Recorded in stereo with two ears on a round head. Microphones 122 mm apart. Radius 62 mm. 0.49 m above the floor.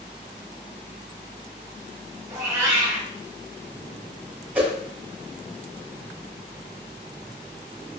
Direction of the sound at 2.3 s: 20° right (ahead or behind).